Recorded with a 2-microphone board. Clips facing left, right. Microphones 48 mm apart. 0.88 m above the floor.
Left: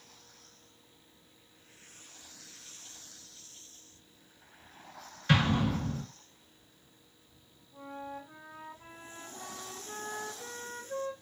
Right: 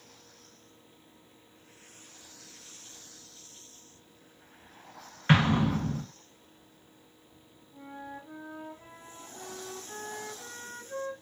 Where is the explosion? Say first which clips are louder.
Right 3 dB; 35° right (ahead or behind), 0.9 m.